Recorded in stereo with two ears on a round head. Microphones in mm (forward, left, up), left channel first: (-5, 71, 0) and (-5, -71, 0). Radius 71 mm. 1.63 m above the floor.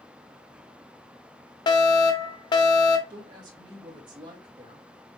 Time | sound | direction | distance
1.7 | a fire alarm | 30° left (ahead or behind) | 0.8 m
3.1 | a woman speaking | 30° right (ahead or behind) | 2 m